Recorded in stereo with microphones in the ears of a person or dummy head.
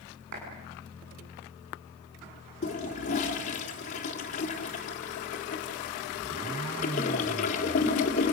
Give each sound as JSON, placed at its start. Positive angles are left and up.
{"t": 0.3, "sound": "a clap", "side_deg": -65, "distance_m": 8.5}
{"t": 2.6, "sound": "a toilet flushing", "side_deg": 40, "distance_m": 3.0}